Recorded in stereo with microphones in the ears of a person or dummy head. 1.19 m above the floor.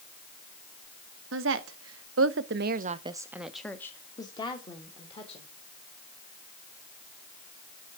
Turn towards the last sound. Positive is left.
turn(degrees=30)  # may be behind; listen again after turning